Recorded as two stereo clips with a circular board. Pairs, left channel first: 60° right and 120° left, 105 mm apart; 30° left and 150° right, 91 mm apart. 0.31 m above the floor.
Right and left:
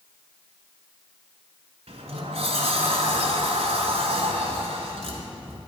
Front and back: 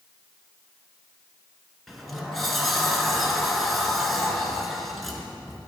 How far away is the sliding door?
About 1.1 m.